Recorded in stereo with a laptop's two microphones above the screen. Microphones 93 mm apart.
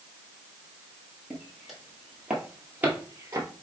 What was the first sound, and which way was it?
Footsteps, 5° left (ahead or behind).